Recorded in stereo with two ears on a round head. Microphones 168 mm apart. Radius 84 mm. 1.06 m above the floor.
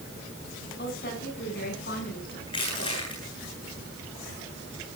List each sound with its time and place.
0.8 s a woman speaking: 55° left (ahead or behind), 8.5 m
2.5 s crushing: 30° left (ahead or behind), 8.5 m